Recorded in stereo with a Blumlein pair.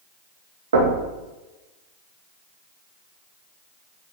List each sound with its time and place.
0.7 s knocking: 65° right, 2.5 m